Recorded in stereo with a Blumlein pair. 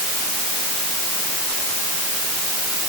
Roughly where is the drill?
I don't hear a drill.